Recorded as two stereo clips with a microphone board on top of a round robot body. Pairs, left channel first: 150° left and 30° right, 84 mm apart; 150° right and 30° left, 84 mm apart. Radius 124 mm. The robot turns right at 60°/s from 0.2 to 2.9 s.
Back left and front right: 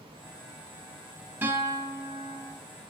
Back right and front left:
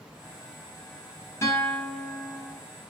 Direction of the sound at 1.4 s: 95° right.